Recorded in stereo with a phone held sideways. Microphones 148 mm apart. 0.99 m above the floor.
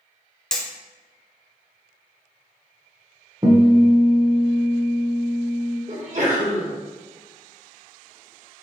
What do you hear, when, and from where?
0.5 s hammering: 5° left (ahead or behind), 0.7 m
3.4 s a guitar: 30° right (ahead or behind), 0.8 m
5.9 s a sneeze: 50° right (ahead or behind), 1.3 m